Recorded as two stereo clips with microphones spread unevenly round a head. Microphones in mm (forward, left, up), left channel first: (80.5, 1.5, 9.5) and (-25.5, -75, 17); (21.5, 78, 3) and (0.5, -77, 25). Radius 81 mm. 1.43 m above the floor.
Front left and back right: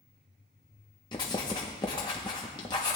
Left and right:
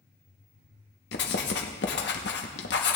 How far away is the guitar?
I don't hear a guitar.